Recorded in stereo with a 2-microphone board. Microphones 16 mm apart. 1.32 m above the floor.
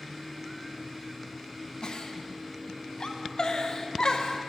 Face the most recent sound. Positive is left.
turn(degrees=60)  # may be behind; listen again after turning